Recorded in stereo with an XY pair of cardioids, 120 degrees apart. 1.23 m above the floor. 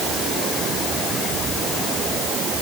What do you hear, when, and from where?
Only background noise.